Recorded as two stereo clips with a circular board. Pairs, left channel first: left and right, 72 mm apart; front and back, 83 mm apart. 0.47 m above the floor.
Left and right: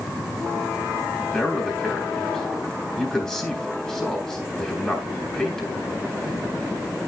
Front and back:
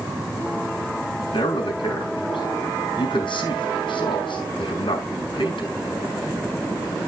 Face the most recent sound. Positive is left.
turn(degrees=5)